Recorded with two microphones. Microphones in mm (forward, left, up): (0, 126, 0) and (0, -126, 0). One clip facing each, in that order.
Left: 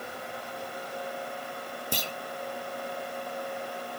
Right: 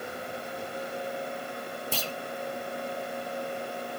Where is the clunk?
15° left (ahead or behind), 0.8 m.